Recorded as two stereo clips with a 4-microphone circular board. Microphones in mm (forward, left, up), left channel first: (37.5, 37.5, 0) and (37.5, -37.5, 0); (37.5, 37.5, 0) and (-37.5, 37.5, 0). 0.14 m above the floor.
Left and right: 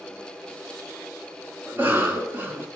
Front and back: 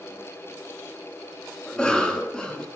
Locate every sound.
1.7 s a cough: 75° right, 1.3 m